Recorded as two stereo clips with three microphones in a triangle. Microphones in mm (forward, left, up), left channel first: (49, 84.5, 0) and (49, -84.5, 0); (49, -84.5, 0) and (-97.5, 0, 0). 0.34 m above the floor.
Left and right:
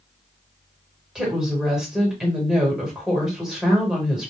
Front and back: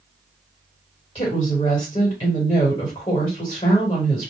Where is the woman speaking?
5° right, 1.5 m.